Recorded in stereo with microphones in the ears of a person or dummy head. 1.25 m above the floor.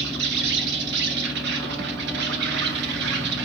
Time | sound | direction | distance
0.0 | an insect | 65° right (ahead or behind) | 1.0 m